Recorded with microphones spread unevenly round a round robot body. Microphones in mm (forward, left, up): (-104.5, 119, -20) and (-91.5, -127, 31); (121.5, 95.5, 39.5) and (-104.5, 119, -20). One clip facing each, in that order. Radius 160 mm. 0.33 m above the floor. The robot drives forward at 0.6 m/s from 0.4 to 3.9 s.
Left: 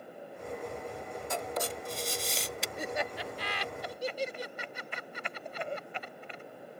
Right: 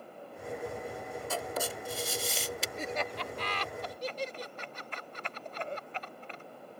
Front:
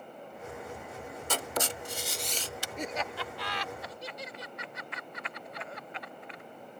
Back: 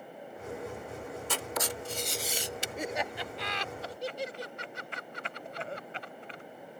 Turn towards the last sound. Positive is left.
turn(degrees=155)